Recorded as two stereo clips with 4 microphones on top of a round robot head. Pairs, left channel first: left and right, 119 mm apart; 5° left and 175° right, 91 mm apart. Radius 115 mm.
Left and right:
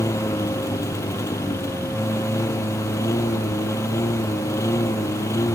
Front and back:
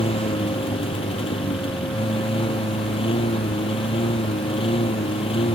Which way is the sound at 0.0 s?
25° left.